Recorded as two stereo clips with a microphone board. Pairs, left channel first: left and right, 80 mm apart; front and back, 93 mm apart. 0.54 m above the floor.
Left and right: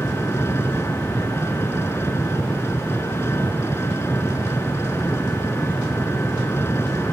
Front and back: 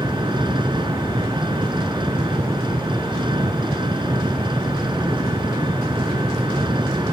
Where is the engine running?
150° left.